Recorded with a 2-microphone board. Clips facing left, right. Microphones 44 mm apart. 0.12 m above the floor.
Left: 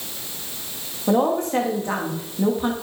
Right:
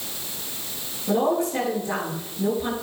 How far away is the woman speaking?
About 8 m.